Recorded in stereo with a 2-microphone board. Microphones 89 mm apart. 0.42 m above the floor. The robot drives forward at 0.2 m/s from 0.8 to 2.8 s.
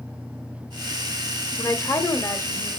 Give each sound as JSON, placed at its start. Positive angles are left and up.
{"t": 1.6, "sound": "a woman speaking", "side_deg": 35, "distance_m": 1.4}